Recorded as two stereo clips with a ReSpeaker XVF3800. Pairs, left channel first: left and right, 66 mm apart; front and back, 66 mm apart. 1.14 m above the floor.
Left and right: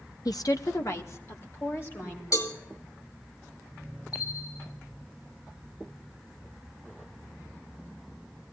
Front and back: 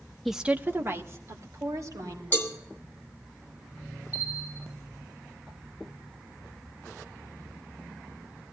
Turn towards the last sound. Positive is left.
turn(degrees=115)